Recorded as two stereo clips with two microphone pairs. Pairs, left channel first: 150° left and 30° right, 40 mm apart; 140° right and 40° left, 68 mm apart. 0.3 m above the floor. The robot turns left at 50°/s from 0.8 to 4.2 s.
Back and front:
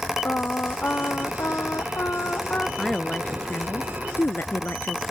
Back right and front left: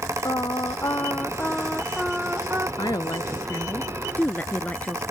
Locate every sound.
0.2 s singing: 170° right; by 2.7 s 95° left
2.8 s a woman speaking: 130° right; by 5.0 s 160° left